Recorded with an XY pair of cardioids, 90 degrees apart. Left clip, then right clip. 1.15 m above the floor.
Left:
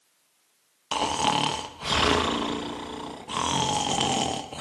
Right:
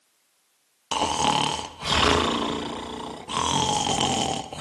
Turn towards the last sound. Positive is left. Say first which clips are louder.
# right 2 dB
turn(degrees=-20)